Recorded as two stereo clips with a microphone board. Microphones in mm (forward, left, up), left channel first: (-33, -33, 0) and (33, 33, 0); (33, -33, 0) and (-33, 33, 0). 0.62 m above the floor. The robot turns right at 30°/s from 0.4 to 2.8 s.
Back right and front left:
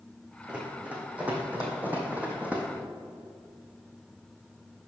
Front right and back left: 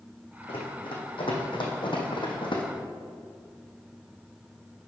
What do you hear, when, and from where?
0.5 s running footsteps: 35° right, 2 m; by 2.6 s 30° right, 1.7 m